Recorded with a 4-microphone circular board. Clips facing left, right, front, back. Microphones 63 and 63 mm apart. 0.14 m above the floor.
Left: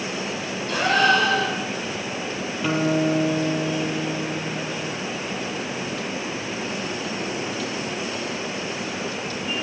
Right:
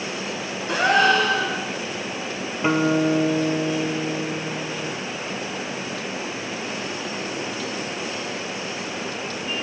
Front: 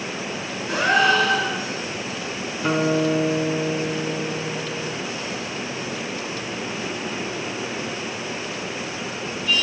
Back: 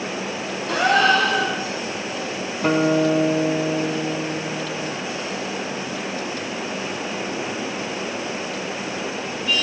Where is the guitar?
150° right, 1.1 m.